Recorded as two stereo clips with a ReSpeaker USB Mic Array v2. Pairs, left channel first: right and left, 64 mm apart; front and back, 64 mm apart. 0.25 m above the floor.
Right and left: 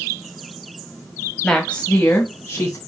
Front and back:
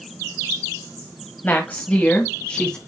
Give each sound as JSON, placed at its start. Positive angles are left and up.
{"t": 1.4, "sound": "a woman speaking", "azimuth_deg": -20, "distance_m": 1.5}